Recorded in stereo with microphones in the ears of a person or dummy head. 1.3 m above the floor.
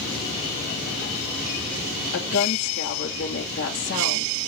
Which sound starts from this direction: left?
A woman speaking, at 2.1 s.